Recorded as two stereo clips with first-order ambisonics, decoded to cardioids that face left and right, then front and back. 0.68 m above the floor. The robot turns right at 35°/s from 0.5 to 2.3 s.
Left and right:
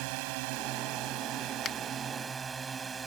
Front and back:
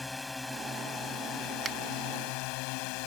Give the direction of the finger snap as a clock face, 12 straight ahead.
8 o'clock.